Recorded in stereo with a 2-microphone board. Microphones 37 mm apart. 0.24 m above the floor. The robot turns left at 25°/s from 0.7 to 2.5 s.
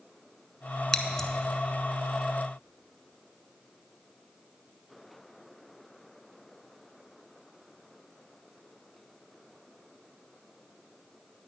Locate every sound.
0.9 s scissors: 15° left (ahead or behind), 0.7 m; by 1.3 s 10° left (ahead or behind), 0.7 m